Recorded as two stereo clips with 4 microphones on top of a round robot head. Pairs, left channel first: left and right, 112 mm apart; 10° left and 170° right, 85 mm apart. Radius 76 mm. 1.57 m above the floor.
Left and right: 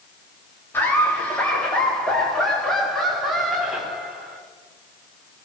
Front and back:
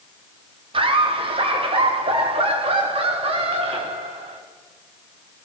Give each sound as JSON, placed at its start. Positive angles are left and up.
{"t": 0.7, "sound": "laughter", "azimuth_deg": 165, "distance_m": 4.0}